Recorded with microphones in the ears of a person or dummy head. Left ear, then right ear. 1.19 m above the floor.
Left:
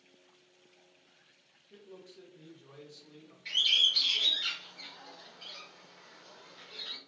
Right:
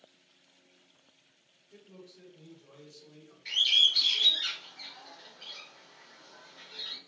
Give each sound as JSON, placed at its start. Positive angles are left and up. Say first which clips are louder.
{"t": 1.7, "sound": "a man speaking", "louder": "left 1 dB", "side_deg": 45, "distance_m": 1.4}
{"t": 3.5, "sound": "a bird", "louder": "right 2 dB", "side_deg": -10, "distance_m": 1.2}